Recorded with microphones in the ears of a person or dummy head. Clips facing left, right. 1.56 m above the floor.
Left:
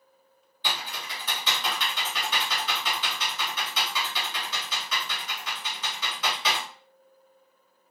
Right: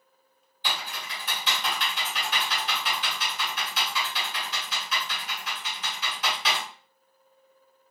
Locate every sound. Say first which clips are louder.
0.6 s typing on a keyboard: even; 65° left (ahead or behind), 1.2 m